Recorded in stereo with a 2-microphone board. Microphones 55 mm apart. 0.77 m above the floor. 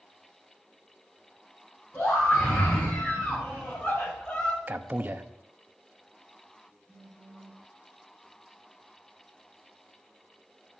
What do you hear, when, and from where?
1.9 s a scream: 35° left (ahead or behind), 6 m; by 4.6 s 25° left (ahead or behind), 2 m
4.7 s a man speaking: 35° right (ahead or behind), 0.9 m
6.9 s a phone buzzing: 20° left (ahead or behind), 3.5 m